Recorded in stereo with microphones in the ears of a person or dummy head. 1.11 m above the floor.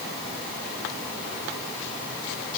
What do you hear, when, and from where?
Only background noise.